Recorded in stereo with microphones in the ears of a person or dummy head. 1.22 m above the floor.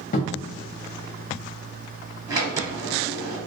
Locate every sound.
0.1 s a cupboard door: 50° left (ahead or behind), 0.5 m
2.3 s a sliding door: 25° right (ahead or behind), 1.1 m